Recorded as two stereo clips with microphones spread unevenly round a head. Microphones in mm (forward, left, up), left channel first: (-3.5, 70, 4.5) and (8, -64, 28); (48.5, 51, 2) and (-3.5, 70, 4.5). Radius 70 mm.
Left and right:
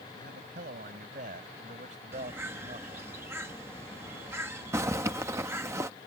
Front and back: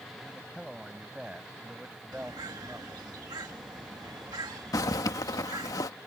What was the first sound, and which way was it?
A man speaking, 110° right.